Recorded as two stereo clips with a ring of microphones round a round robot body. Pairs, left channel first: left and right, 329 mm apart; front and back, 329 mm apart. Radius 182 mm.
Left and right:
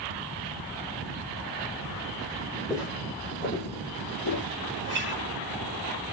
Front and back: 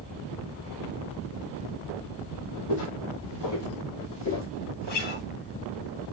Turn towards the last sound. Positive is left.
turn(degrees=-30)